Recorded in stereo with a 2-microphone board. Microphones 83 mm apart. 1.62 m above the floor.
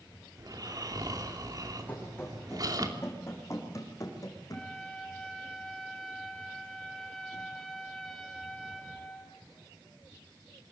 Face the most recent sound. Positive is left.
turn(degrees=5)  # may be behind; listen again after turning